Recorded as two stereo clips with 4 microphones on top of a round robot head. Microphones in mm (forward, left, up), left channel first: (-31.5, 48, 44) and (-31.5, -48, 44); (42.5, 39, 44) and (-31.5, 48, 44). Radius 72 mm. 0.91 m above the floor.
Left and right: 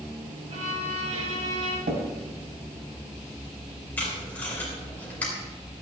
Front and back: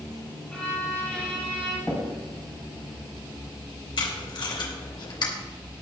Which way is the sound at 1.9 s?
90° right.